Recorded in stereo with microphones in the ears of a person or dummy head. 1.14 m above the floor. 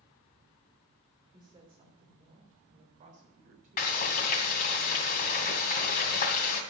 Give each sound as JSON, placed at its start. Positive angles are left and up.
{"t": 1.3, "sound": "a woman speaking", "side_deg": -20, "distance_m": 3.0}
{"t": 3.8, "sound": "frying", "side_deg": 50, "distance_m": 2.0}